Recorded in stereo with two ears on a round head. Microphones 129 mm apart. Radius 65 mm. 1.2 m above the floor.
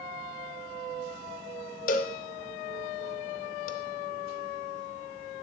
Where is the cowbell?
60° left (ahead or behind), 0.6 m.